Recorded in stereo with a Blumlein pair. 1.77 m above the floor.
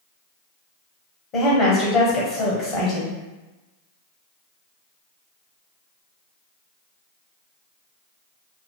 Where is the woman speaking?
35° left, 0.9 m.